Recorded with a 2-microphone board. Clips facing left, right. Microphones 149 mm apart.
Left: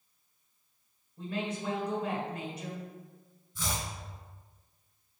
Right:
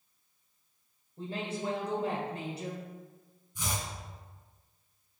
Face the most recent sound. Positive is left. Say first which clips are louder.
# left 1 dB
turn(degrees=-20)  # may be behind; listen again after turning